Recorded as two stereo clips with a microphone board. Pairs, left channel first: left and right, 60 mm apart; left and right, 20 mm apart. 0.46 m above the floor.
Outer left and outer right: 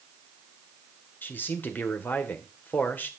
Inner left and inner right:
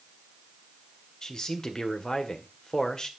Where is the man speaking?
35° left (ahead or behind), 1.5 m.